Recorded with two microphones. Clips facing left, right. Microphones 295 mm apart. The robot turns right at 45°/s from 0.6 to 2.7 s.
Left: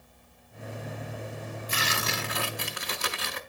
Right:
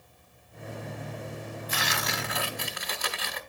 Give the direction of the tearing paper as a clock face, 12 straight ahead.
10 o'clock.